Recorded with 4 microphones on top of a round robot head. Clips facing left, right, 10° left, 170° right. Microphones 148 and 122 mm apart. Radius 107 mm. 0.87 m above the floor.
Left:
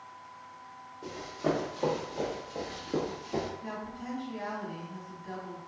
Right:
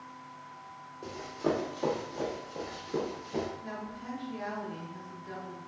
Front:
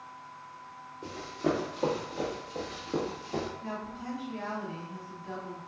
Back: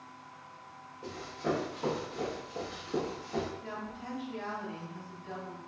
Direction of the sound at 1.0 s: 10° right.